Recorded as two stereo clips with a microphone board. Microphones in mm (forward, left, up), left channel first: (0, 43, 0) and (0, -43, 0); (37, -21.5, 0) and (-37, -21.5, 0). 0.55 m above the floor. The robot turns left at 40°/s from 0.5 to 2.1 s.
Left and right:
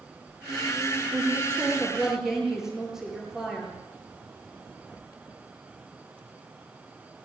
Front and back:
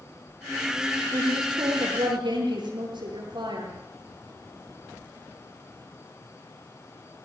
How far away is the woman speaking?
About 9 m.